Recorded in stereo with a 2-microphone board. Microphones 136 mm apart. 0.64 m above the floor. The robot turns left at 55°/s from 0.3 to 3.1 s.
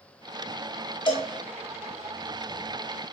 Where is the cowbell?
35° left (ahead or behind), 1.0 m.